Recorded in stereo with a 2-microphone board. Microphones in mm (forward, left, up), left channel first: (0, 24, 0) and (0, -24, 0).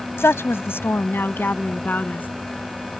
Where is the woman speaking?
60° left (ahead or behind); by 2.3 s 35° left (ahead or behind).